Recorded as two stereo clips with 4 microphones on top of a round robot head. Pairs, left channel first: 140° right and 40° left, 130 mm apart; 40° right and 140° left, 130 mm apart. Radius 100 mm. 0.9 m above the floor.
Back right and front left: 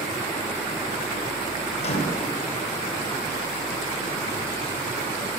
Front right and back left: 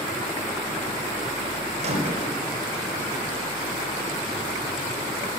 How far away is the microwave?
About 3 m.